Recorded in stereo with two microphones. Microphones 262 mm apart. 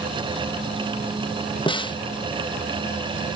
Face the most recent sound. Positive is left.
turn(degrees=20)  # may be behind; listen again after turning